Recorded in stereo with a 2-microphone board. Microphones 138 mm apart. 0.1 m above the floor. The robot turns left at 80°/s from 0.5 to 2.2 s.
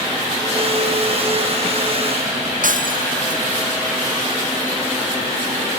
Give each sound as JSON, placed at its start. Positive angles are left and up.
{"t": 2.6, "sound": "breaking glass", "side_deg": -75}